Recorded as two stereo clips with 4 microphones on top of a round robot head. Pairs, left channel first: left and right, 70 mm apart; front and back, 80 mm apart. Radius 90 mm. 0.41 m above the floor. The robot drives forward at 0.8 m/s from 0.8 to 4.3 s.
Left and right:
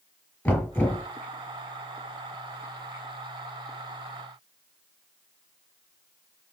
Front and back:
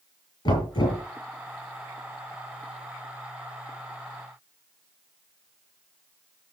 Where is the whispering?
I don't hear whispering.